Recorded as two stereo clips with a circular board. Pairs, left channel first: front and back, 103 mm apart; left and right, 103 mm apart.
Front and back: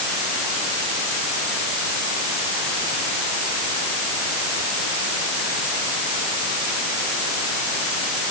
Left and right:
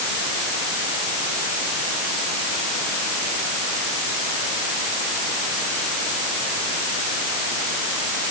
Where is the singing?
I don't hear singing.